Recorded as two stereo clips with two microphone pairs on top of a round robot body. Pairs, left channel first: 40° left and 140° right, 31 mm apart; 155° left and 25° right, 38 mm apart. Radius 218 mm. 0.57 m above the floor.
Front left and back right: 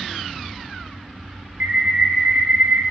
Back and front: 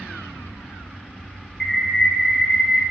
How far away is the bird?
About 1.4 m.